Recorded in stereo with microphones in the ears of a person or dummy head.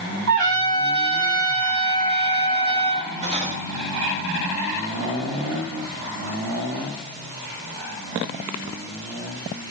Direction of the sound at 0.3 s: 70° right (ahead or behind).